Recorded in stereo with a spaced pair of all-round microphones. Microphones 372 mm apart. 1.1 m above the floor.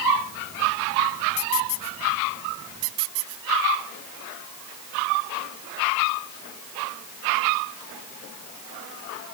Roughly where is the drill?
No drill in this recording.